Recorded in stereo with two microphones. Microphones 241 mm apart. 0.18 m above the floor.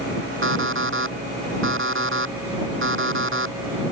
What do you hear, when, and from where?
0.4 s an alarm clock: 60° right (ahead or behind)